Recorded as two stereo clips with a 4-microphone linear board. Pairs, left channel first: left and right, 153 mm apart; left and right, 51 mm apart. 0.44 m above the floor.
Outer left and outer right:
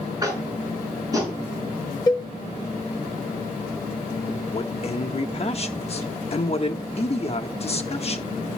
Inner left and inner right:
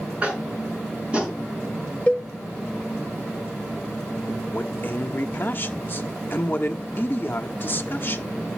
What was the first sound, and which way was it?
Tapping, 25° right (ahead or behind).